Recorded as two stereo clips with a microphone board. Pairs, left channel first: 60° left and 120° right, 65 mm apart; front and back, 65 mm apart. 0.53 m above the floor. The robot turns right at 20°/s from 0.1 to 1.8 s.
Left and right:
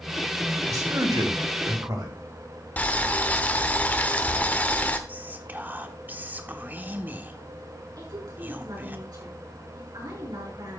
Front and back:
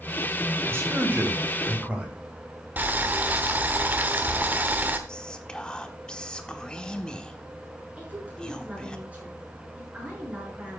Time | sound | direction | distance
0.7 | a man speaking | 135° right | 3.5 m
2.8 | boiling | 120° left | 1.0 m
5.1 | whispering | 70° right | 1.0 m
8.0 | a woman speaking | 110° right | 6.5 m